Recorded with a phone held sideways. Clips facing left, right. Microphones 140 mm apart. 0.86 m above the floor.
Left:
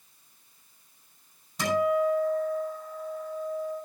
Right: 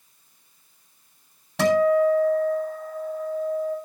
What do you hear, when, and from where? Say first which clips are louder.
1.6 s a guitar: right 7 dB; 80° right, 8 m